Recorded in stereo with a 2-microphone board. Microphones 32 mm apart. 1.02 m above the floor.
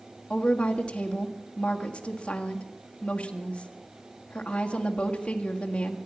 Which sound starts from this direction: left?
A woman speaking, at 0.3 s.